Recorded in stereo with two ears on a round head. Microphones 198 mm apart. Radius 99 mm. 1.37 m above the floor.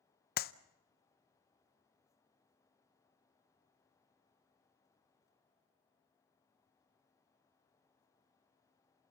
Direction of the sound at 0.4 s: 45° left (ahead or behind).